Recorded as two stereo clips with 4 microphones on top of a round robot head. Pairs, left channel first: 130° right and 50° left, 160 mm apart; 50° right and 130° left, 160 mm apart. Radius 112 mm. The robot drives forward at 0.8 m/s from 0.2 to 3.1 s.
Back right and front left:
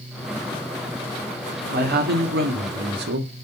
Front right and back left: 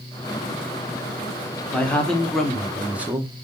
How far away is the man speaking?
About 2.5 m.